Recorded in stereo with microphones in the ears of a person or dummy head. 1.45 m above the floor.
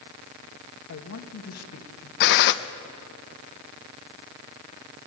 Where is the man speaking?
70° left (ahead or behind), 2 m.